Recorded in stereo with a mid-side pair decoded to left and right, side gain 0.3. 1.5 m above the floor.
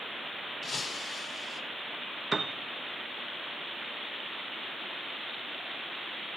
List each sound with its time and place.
0.6 s breaking glass: 60° left, 3 m
2.3 s a piano: 40° right, 0.7 m